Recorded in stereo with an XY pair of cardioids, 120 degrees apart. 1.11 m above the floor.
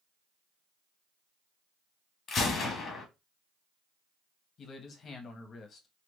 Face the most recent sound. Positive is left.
turn(degrees=45)